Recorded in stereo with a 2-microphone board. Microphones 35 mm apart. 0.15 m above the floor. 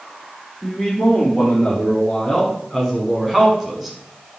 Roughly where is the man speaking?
Centre.